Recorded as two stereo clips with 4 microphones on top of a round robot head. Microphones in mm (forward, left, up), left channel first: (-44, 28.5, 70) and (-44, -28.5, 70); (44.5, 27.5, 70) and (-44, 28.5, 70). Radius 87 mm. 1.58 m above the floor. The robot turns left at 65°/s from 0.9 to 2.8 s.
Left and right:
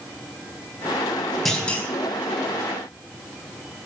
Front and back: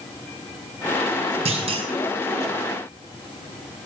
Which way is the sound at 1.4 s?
Straight behind.